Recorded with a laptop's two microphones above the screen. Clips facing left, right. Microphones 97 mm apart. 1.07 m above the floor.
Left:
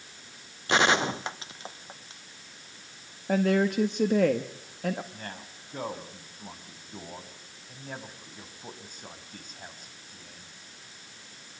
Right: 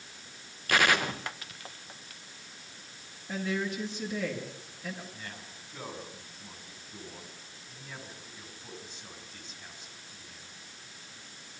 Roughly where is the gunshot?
Left.